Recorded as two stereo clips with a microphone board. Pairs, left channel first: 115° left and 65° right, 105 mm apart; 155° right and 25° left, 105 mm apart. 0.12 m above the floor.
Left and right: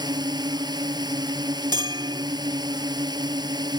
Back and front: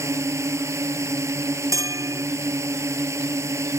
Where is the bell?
30° right.